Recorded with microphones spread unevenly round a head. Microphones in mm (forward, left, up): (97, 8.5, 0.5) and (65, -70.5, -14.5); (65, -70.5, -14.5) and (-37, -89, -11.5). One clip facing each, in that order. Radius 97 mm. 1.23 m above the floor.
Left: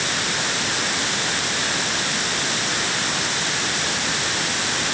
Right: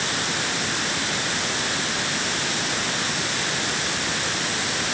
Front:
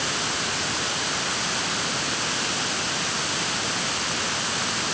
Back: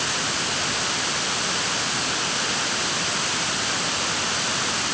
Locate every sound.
Only background noise.